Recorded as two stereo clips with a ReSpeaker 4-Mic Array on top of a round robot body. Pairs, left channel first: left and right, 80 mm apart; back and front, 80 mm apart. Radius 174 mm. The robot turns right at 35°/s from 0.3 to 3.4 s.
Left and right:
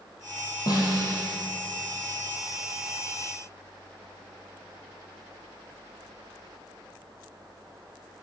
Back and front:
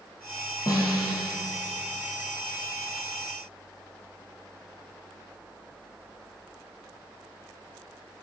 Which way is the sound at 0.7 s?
135° left.